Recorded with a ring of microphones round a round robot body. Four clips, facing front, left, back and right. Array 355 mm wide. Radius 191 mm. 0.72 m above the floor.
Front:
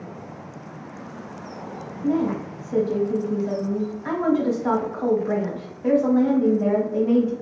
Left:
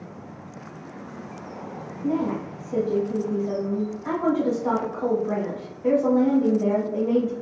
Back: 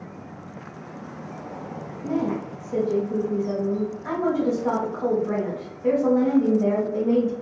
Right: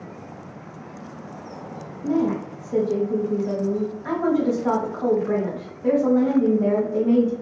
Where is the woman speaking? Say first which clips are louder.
Right 3 dB, front 3 dB; 25° right, 1.0 m.